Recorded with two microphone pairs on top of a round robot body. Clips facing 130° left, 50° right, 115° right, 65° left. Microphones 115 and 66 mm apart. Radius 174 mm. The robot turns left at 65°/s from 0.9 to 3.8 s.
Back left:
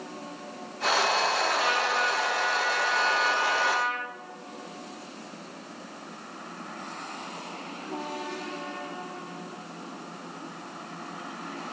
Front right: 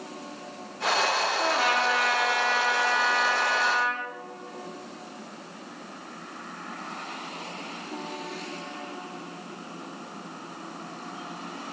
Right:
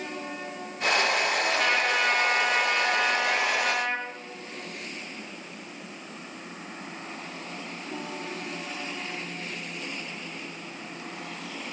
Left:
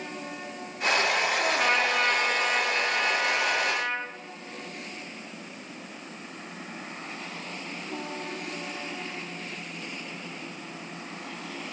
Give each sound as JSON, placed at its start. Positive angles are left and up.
{"t": 1.4, "sound": "a trumpet", "azimuth_deg": 15, "distance_m": 1.0}